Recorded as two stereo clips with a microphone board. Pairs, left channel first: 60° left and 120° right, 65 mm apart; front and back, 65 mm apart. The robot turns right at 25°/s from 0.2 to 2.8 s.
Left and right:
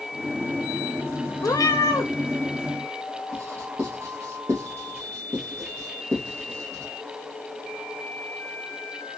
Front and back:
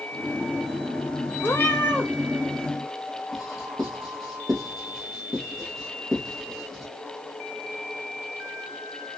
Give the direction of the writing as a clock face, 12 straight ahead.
3 o'clock.